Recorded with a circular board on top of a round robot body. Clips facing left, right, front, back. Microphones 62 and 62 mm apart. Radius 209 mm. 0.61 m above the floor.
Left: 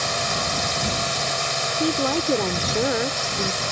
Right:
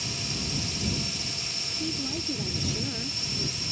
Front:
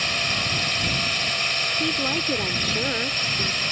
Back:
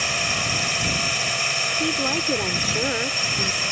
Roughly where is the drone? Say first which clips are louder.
Left 11 dB, back 1 dB; left.